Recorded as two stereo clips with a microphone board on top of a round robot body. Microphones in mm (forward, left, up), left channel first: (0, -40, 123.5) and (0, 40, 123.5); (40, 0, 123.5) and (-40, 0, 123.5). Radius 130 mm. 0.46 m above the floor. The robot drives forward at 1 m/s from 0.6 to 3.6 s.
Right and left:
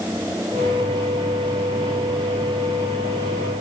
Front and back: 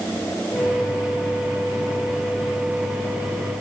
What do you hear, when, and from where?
Only background noise.